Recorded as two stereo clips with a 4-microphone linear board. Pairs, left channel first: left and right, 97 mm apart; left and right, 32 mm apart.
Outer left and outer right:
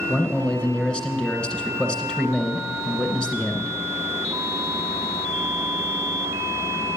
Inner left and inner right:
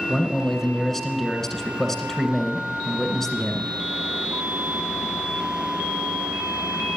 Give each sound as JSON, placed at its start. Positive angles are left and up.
{"t": 0.1, "sound": "a man speaking", "side_deg": 10, "distance_m": 2.0}